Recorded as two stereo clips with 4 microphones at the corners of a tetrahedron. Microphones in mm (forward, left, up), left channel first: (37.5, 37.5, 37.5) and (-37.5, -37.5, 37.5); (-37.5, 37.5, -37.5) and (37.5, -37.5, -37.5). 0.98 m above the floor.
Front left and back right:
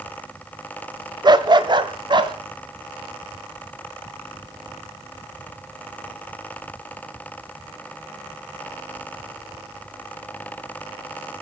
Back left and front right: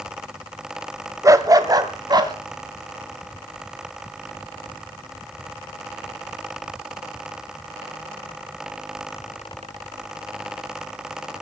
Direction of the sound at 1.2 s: 100° right.